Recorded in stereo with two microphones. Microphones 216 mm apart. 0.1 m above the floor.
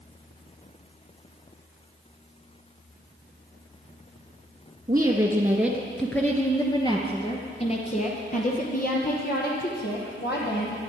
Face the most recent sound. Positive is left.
turn(degrees=55)  # may be behind; listen again after turning